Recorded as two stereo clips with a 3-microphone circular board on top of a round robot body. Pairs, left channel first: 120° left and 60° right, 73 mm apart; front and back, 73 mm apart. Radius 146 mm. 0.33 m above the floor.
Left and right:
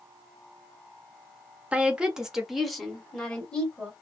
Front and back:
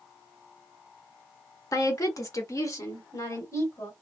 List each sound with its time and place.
1.7 s a woman speaking: 5° left, 1.4 m; by 3.9 s 50° left, 2 m